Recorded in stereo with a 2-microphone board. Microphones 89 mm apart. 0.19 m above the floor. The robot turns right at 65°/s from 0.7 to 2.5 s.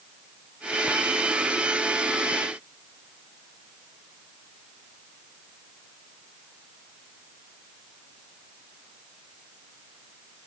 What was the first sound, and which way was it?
Only background noise.